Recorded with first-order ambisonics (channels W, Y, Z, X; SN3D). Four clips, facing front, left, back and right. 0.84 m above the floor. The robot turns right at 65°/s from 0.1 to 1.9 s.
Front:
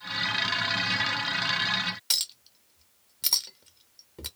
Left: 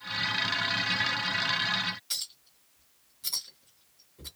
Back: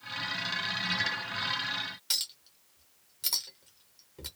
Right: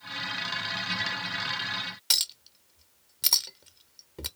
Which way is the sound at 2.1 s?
70° right.